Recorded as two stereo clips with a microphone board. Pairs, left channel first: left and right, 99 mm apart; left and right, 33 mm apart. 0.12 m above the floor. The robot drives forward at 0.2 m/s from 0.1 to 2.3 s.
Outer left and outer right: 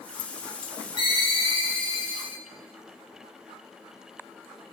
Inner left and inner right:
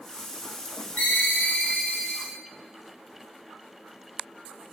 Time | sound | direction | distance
1.0 | a ringtone | 55° left (ahead or behind) | 1.0 m